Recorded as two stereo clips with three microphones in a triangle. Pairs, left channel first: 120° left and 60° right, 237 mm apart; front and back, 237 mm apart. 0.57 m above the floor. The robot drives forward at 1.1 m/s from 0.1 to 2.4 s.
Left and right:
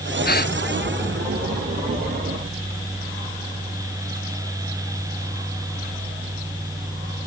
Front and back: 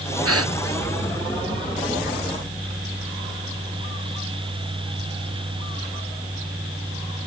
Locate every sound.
0.2 s a gasp: 170° left